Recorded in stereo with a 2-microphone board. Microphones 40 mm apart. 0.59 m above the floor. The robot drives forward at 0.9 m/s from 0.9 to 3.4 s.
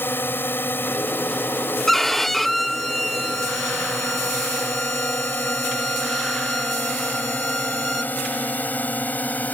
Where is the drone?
65° left (ahead or behind); by 9.6 s 40° left (ahead or behind).